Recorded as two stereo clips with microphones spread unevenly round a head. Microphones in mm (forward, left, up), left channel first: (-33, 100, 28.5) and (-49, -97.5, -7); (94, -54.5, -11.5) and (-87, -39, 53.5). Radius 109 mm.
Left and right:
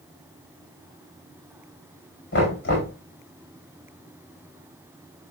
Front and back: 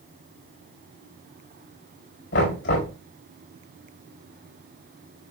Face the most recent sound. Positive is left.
turn(degrees=40)